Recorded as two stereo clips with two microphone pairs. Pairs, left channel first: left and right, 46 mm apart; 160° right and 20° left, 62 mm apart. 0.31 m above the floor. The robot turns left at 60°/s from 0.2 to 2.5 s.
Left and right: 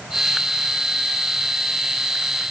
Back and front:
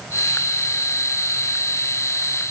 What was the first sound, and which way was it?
Only background noise.